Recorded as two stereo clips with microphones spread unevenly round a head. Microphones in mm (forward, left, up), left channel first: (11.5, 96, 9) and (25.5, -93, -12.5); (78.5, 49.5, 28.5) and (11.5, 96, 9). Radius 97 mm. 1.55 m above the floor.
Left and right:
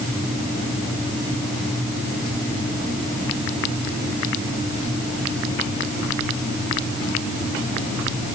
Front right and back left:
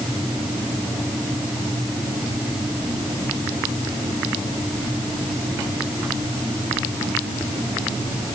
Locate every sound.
Only background noise.